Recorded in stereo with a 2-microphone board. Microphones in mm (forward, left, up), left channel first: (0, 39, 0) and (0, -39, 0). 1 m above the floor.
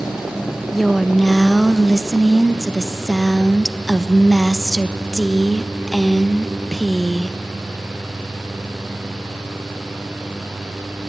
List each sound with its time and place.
0.7 s a woman speaking: 5° left (ahead or behind), 0.9 m